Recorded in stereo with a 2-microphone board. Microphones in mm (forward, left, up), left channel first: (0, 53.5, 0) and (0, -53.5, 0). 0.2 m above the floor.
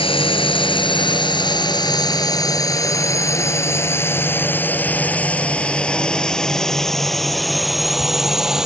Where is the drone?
55° left (ahead or behind); by 8.7 s 5° right (ahead or behind).